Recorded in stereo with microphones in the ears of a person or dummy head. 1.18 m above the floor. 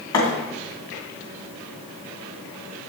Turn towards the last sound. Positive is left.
turn(degrees=20)  # may be behind; listen again after turning